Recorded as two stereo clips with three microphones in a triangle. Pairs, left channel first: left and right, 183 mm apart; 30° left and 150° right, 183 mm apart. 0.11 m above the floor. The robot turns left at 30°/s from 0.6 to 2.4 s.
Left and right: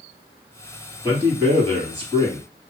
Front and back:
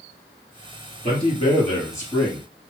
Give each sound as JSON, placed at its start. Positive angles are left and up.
{"t": 1.0, "sound": "a man speaking", "azimuth_deg": -15, "distance_m": 2.5}